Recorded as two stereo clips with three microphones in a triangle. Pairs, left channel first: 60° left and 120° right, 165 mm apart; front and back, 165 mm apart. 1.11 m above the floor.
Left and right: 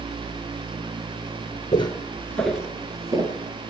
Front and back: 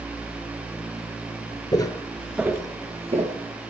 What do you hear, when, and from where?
1.7 s footsteps: 35° left, 1.3 m; by 3.4 s 175° right, 1.6 m